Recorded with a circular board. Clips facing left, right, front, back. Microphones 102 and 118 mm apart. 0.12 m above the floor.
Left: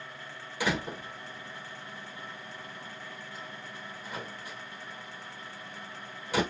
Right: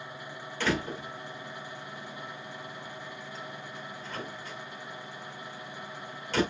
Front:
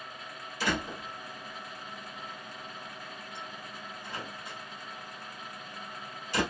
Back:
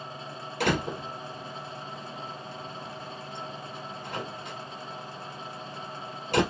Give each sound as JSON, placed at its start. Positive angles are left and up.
{"t": 0.6, "sound": "a door slam", "azimuth_deg": 170, "distance_m": 2.0}